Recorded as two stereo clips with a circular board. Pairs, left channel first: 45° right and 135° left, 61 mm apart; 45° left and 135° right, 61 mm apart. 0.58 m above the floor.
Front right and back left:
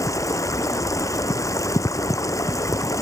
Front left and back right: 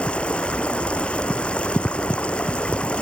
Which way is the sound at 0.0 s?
25° right.